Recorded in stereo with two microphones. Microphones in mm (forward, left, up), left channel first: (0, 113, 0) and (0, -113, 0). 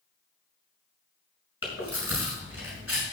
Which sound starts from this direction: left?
Chewing, at 1.6 s.